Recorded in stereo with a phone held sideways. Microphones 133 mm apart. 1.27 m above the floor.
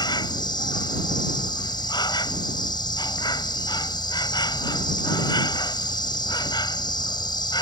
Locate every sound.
0.0 s an insect: 30° left (ahead or behind)